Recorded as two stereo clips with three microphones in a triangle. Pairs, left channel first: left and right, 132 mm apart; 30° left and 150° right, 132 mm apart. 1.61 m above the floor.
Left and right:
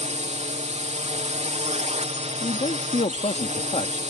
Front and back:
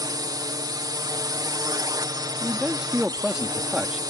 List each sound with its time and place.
0.0 s a drone: 95° right
2.4 s a man speaking: 125° left